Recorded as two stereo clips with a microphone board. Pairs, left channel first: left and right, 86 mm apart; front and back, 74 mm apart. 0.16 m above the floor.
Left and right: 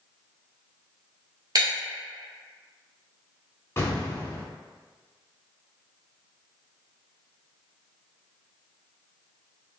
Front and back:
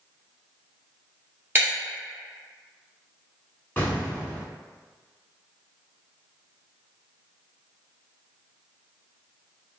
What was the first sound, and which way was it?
Breaking glass, 125° right.